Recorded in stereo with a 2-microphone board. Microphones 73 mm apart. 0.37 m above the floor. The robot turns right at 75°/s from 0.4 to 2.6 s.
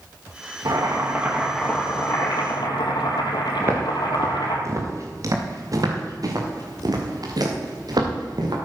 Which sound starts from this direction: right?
Footsteps, at 3.6 s.